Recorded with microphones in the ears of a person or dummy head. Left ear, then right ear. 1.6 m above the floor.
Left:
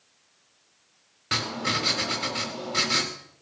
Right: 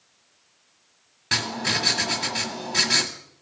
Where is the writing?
20° right (ahead or behind), 1.5 m.